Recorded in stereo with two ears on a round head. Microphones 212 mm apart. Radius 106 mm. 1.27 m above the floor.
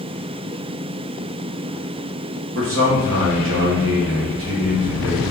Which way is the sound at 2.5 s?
60° right (ahead or behind).